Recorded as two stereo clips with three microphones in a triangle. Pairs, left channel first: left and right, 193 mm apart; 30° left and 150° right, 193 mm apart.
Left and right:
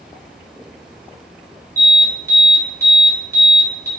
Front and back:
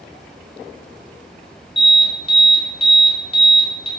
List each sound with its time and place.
1.8 s an alarm: 20° right, 0.8 m